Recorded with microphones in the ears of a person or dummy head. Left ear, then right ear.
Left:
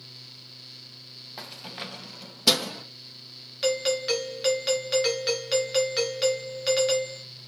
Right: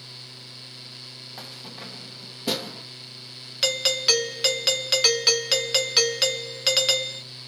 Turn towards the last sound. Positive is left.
turn(degrees=-30)  # may be behind; listen again after turning